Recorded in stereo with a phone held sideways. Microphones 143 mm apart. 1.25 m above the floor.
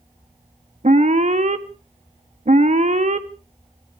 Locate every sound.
0.8 s an alarm: 55° right (ahead or behind), 1.1 m